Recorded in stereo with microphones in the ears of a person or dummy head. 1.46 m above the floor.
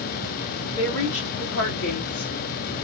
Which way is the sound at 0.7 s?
75° left (ahead or behind).